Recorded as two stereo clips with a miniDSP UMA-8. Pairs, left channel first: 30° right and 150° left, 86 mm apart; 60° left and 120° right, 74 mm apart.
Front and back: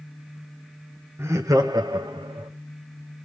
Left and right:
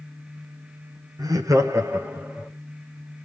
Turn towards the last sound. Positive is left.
turn(degrees=170)